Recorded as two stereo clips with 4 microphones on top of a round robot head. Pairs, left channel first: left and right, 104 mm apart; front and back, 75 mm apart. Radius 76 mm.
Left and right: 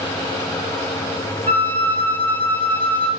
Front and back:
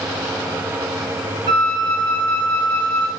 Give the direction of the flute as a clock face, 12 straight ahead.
7 o'clock.